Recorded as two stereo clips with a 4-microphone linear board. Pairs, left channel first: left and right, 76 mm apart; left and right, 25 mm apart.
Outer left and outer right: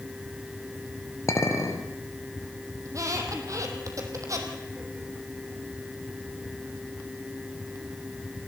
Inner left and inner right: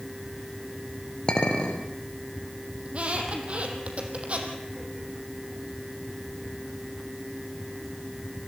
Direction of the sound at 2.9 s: 45° right (ahead or behind).